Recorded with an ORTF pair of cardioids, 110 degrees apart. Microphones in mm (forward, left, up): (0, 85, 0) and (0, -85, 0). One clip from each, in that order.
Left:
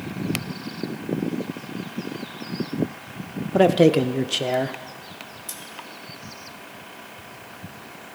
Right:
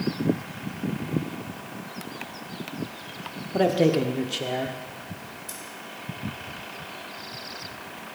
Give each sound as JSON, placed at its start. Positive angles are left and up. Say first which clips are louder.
{"t": 3.5, "sound": "a man speaking", "louder": "left 5 dB", "azimuth_deg": 30, "distance_m": 0.7}
{"t": 5.5, "sound": "scissors", "louder": "left 2 dB", "azimuth_deg": 30, "distance_m": 2.0}